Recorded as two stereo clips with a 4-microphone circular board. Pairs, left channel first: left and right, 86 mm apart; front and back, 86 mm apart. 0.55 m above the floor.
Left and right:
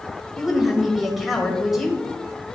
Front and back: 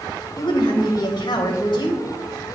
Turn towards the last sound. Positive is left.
turn(degrees=0)